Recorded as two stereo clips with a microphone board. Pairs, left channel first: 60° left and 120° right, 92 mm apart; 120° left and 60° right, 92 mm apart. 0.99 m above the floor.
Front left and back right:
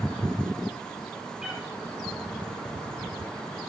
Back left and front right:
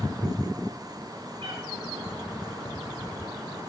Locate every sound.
1.4 s a cat meowing: 40° right, 6.5 m